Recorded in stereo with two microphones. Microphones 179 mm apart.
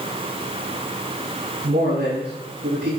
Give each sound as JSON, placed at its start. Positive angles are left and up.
{"t": 1.6, "sound": "a man speaking", "side_deg": -75, "distance_m": 6.0}